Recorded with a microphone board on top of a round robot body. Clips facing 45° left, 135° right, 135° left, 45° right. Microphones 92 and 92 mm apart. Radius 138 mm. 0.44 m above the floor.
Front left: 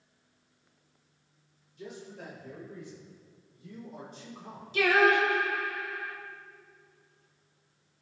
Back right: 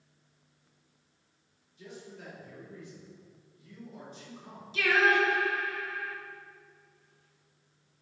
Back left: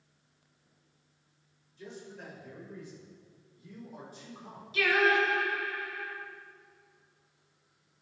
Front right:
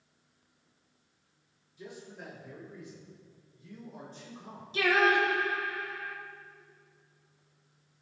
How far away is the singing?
About 1.8 m.